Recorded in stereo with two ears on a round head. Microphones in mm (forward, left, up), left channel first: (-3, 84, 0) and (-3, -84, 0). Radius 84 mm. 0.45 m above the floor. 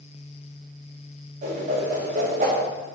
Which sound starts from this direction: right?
A whoosh, at 1.4 s.